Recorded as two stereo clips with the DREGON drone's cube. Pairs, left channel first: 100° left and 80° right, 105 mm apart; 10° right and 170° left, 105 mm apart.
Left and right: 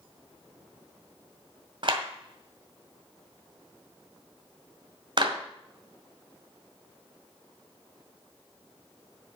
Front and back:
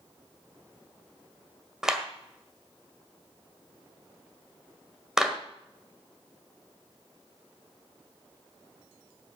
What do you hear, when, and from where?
1.8 s a clap: 105° right, 1.7 m